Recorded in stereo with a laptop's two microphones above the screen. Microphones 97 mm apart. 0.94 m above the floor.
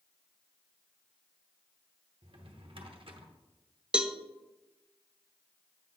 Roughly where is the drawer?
Right.